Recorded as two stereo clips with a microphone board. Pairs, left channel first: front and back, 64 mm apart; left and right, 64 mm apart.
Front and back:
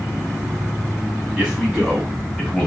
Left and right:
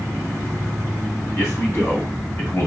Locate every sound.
1.4 s a man speaking: 105° left, 1.7 m; by 2.7 s 75° left, 1.4 m